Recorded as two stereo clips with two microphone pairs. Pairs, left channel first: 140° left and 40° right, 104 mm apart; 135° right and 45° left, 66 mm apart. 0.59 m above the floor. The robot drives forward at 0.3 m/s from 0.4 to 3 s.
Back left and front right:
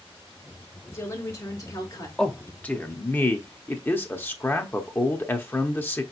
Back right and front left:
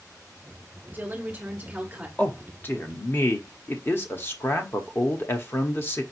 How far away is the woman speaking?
About 1.5 m.